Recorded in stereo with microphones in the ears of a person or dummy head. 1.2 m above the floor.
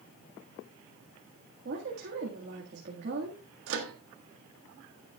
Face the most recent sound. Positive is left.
turn(degrees=-75)  # may be behind; listen again after turning